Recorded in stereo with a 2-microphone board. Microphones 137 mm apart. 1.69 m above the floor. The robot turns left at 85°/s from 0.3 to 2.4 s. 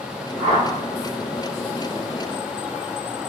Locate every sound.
0.4 s a whoosh: 70° left (ahead or behind), 1.6 m; by 0.7 s 50° left (ahead or behind), 1.6 m